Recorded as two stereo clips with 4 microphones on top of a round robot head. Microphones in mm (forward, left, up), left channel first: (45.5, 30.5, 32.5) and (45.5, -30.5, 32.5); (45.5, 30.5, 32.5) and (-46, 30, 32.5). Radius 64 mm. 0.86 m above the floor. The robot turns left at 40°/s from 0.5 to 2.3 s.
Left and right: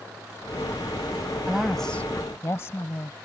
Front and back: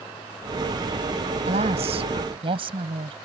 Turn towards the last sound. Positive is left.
turn(degrees=155)